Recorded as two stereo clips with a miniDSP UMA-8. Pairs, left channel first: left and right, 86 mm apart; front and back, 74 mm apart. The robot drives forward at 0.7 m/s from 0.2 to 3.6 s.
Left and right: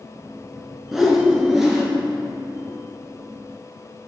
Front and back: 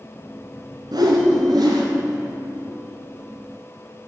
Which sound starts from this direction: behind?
A whoosh, at 0.9 s.